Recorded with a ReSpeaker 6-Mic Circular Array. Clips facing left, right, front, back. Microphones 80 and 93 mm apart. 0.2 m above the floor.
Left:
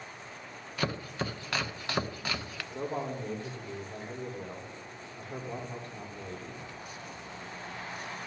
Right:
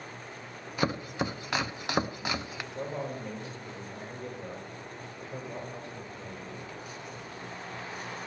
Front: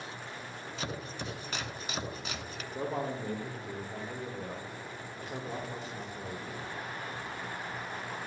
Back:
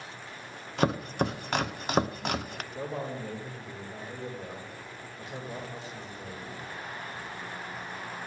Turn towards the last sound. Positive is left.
turn(degrees=50)